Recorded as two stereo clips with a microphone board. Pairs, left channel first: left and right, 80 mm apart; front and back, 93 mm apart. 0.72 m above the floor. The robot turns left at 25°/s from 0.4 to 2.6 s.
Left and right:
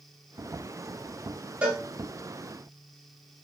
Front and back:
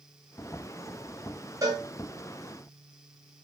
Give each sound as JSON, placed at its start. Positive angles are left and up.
{"t": 1.6, "sound": "a cowbell", "azimuth_deg": -155, "distance_m": 0.8}